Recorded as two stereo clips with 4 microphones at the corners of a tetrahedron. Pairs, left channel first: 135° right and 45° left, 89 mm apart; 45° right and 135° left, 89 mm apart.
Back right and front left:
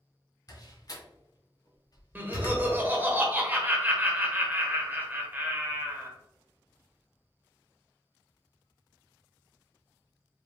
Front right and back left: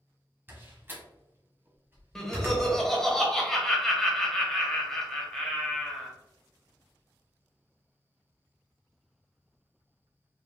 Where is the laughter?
30° left, 1.1 m.